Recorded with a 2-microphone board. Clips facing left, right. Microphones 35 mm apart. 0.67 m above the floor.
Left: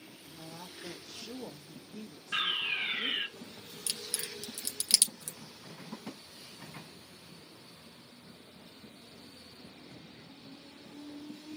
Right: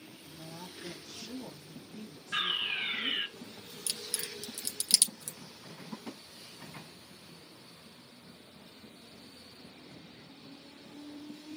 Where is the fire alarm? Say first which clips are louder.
Even; 30° left (ahead or behind), 1.8 m.